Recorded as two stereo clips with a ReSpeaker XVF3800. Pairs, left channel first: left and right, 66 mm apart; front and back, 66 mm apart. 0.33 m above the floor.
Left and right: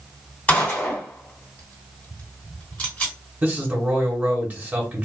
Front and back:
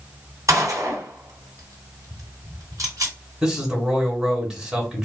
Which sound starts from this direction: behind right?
A man speaking, at 3.4 s.